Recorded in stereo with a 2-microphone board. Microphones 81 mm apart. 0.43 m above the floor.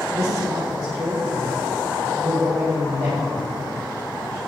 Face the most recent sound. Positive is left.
turn(degrees=-70)  # may be behind; listen again after turning